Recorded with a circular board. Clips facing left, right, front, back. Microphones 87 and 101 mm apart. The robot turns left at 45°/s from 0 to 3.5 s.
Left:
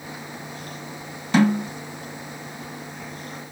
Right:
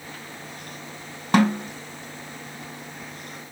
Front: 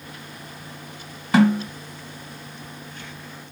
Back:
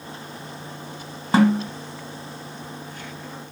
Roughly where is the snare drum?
Behind right.